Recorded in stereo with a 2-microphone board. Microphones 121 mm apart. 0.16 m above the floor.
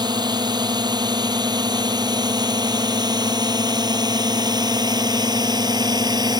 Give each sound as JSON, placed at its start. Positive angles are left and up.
{"t": 0.0, "sound": "a drone", "side_deg": -35}